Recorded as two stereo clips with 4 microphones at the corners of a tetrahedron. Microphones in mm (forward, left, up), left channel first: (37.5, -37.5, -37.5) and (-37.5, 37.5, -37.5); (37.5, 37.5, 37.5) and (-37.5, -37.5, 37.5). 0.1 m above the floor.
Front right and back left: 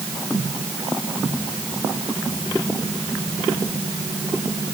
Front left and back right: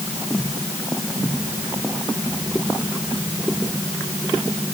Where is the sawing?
I don't hear sawing.